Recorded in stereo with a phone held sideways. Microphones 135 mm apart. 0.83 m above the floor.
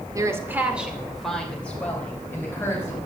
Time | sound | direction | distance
0.1 | a woman speaking | 25° right (ahead or behind) | 1.9 m